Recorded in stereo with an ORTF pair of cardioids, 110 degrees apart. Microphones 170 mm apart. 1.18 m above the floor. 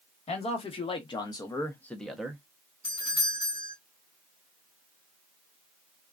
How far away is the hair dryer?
No hair dryer in this recording.